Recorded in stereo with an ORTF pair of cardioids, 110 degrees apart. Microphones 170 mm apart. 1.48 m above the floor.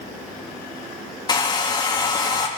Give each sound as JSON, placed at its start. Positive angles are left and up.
{"t": 1.3, "sound": "a hair dryer", "azimuth_deg": 25, "distance_m": 2.0}